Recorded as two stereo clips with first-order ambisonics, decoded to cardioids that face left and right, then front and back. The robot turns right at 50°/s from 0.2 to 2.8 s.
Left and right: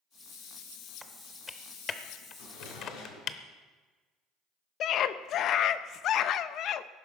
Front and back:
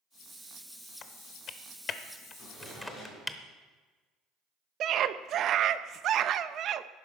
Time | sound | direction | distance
1.0 | typing on a keyboard | 5° right | 0.7 m
2.4 | a drawer | 65° left | 6 m
4.8 | a scream | 135° left | 0.6 m